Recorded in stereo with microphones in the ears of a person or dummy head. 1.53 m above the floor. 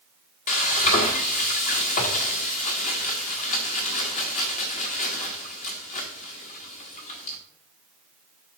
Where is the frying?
30° left (ahead or behind), 1.1 m.